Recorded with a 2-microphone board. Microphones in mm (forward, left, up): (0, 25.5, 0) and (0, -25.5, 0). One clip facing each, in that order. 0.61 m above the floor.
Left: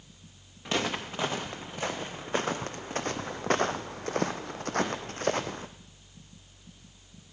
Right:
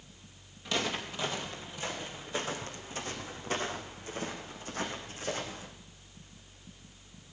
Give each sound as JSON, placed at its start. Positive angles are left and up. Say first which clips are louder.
{"t": 0.7, "sound": "footsteps", "louder": "left 3 dB", "side_deg": 30, "distance_m": 2.5}